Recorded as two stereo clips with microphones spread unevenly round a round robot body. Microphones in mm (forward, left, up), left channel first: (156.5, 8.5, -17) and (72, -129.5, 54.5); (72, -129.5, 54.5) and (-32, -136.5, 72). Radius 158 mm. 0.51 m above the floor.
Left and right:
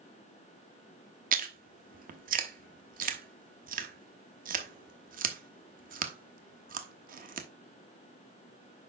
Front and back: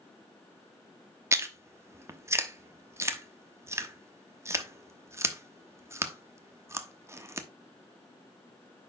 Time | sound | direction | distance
1.3 | chewing | 125° right | 1.0 m